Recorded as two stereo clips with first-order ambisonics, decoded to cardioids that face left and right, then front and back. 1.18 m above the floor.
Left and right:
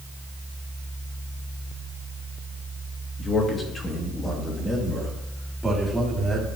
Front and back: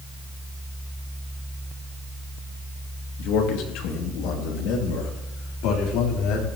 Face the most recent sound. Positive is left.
turn(degrees=-5)